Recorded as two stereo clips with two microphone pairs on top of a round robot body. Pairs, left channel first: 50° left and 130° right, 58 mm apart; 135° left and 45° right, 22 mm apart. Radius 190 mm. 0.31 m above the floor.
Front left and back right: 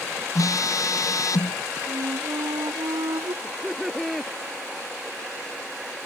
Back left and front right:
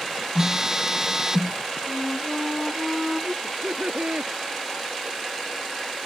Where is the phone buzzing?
25° left.